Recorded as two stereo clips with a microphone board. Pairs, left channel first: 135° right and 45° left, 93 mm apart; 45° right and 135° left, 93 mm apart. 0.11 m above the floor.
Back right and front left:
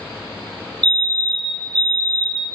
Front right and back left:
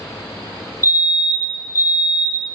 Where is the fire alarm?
160° left, 2.5 m.